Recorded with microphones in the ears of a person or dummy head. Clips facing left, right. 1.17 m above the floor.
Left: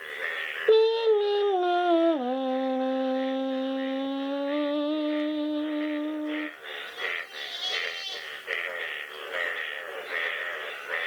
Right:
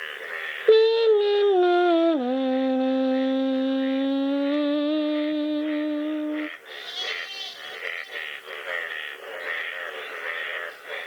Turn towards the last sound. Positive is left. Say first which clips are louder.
# right 4 dB
turn(degrees=-20)  # may be behind; listen again after turning